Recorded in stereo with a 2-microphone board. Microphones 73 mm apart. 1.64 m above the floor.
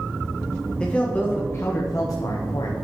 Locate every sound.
0.8 s a man speaking: 15° left (ahead or behind), 1.0 m; by 2.7 s 75° left (ahead or behind), 1.0 m